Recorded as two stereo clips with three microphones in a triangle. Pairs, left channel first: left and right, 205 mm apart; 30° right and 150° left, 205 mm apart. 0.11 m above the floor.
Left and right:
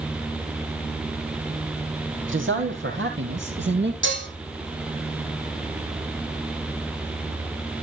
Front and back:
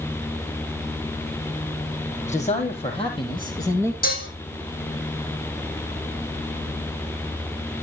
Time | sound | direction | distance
2.3 | a man speaking | 85° right | 4 m
4.0 | dishes clattering | 75° right | 3.5 m